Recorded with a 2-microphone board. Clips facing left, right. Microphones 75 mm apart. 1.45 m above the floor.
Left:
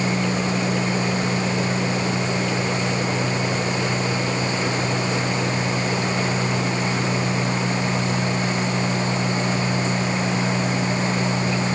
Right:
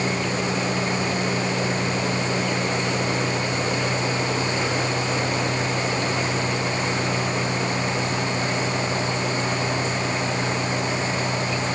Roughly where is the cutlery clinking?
No cutlery clinking in this recording.